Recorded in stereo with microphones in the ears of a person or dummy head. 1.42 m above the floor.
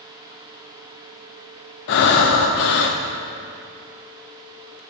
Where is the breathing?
60° left (ahead or behind), 0.8 m.